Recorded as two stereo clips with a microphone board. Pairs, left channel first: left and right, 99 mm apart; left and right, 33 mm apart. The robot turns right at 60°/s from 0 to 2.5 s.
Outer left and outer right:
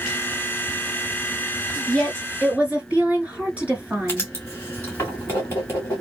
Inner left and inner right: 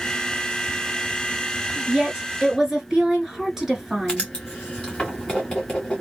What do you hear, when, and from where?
1.9 s a woman speaking: 60° right, 1.6 m; by 4.3 s 20° right, 1.6 m
4.1 s writing: 25° left (ahead or behind), 2 m